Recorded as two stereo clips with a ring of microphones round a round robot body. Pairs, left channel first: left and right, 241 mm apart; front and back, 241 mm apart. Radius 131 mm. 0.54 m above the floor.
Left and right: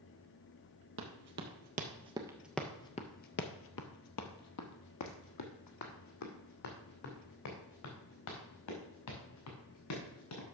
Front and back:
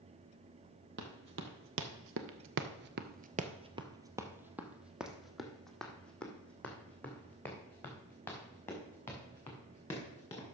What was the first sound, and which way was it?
Running footsteps, 130° right.